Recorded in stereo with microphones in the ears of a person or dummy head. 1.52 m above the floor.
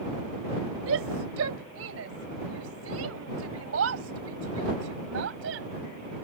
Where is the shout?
85° right; by 5.7 s 75° right (ahead or behind).